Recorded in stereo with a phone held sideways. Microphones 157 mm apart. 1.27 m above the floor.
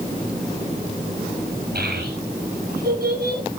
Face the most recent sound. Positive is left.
turn(degrees=-70)  # may be behind; listen again after turning